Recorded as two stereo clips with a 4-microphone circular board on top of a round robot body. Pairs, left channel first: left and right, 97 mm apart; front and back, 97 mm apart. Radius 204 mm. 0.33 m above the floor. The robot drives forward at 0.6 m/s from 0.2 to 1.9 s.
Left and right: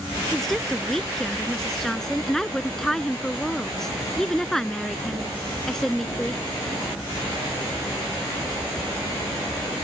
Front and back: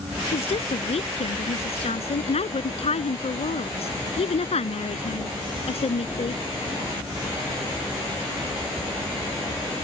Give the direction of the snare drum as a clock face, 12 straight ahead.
I don't hear a snare drum.